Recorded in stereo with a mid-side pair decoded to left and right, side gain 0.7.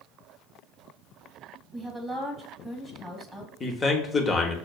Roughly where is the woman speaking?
Ahead.